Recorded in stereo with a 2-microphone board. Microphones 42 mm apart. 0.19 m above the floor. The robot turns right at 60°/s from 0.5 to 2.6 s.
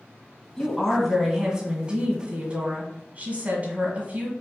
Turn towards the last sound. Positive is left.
turn(degrees=-85)